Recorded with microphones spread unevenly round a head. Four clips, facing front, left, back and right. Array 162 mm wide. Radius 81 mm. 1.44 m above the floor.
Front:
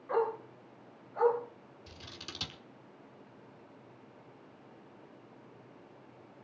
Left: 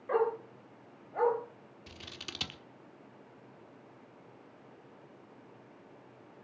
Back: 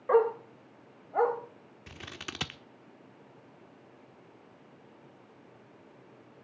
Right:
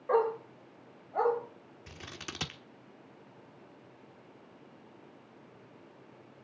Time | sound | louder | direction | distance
0.1 | a dog barking | right 2 dB, back 7 dB | 165° right | 3.5 m
1.9 | scissors | right 4 dB, back 7 dB | 155° right | 1.3 m